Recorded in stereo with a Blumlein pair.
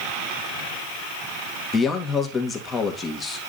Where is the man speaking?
20° left, 2 m.